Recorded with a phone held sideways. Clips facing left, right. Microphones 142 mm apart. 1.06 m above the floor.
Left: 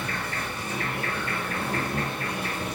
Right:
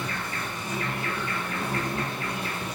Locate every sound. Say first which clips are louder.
0.0 s an insect: left 1 dB; 80° left, 2.5 m